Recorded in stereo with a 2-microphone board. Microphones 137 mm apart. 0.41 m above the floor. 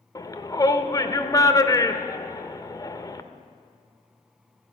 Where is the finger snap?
No finger snap in this recording.